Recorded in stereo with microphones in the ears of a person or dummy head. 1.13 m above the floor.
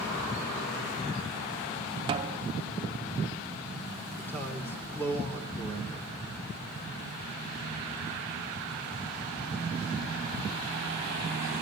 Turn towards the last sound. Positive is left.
turn(degrees=10)  # may be behind; listen again after turning